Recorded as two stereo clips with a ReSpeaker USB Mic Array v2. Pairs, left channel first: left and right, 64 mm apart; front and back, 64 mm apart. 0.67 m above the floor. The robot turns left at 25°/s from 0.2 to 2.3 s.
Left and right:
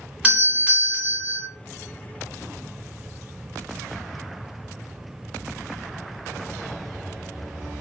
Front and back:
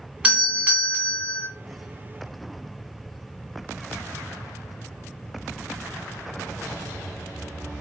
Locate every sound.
0.2 s a doorbell: 130° right, 1.1 m; by 1.5 s 160° right, 1.1 m